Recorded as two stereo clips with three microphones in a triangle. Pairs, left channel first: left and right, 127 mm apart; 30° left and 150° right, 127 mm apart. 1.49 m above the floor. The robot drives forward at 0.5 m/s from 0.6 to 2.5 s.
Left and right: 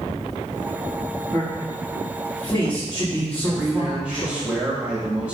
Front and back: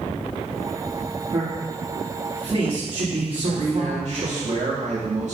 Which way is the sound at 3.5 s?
170° right.